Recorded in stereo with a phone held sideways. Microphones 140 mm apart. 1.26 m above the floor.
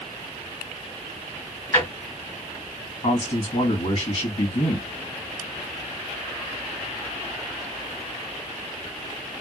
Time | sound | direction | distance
1.7 | a drawer | 20° left (ahead or behind) | 1.4 m
3.0 | a man speaking | 50° left (ahead or behind) | 1.6 m